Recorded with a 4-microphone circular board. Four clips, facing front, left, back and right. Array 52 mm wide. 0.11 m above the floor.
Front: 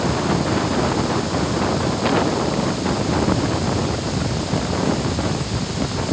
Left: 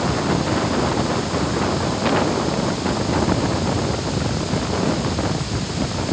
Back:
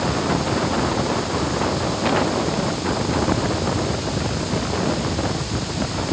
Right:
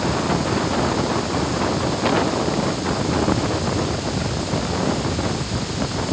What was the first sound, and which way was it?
Only background noise.